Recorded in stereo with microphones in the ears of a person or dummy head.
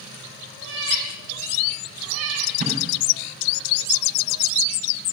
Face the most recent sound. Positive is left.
turn(degrees=-45)  # may be behind; listen again after turning